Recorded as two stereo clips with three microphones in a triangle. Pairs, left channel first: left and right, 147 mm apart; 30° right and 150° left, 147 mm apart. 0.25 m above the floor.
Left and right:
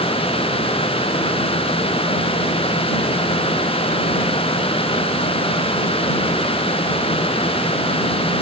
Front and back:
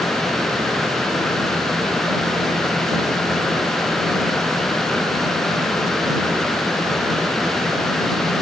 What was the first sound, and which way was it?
Only background noise.